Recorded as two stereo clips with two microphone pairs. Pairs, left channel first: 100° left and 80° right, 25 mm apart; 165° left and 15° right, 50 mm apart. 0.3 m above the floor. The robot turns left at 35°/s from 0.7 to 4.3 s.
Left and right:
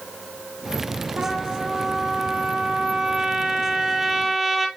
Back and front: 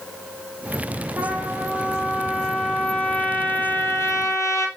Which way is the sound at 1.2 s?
65° right.